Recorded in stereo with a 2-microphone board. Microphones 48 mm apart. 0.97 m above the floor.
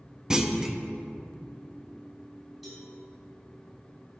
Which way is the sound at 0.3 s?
10° right (ahead or behind).